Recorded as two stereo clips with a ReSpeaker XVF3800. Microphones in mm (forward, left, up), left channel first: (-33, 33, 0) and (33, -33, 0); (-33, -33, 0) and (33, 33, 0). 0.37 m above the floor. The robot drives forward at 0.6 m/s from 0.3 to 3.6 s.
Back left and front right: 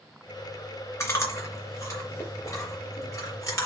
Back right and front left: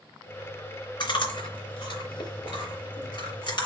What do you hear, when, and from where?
1.0 s chewing: 165° right, 3 m; by 3.7 s 170° right, 4.5 m